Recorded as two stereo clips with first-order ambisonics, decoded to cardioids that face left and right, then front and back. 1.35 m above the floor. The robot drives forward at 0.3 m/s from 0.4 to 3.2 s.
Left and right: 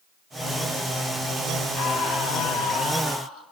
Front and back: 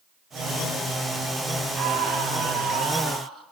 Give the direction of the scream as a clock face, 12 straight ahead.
8 o'clock.